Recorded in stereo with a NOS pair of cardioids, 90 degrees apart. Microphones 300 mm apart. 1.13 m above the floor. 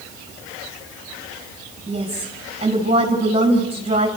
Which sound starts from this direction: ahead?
A woman speaking, at 1.9 s.